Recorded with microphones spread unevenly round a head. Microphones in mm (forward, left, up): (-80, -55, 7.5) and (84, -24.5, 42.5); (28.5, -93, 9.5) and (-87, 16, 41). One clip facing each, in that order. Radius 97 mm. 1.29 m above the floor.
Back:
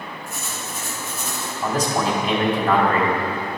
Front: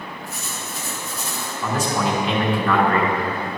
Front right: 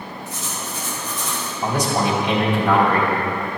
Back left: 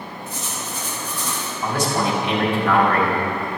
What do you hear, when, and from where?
0.3 s writing: 140° left, 2 m
1.6 s a man speaking: 115° right, 2.5 m